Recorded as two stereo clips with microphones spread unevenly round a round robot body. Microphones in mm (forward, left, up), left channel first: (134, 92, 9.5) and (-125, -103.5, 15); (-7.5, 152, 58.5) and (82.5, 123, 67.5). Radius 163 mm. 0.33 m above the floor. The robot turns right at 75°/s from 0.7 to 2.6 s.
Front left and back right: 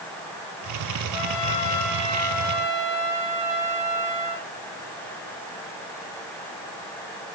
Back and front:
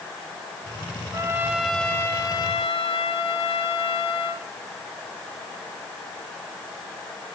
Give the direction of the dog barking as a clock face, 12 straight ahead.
No dog barking in this recording.